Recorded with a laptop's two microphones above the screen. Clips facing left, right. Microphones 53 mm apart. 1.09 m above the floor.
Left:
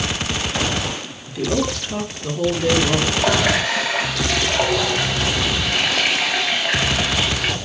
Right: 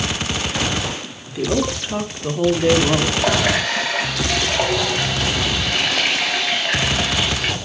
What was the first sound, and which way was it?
A woman speaking, 15° right (ahead or behind).